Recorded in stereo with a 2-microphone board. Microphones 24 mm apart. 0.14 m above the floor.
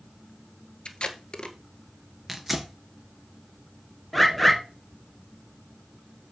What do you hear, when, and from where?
0.8 s tape being pulled: 45° left (ahead or behind), 1.3 m
2.3 s tearing paper: 5° right (ahead or behind), 2 m
4.1 s a bird: 10° left (ahead or behind), 2 m